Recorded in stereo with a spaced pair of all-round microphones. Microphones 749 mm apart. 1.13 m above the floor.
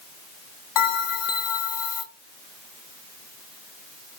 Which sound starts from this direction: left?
A bell, at 0.8 s.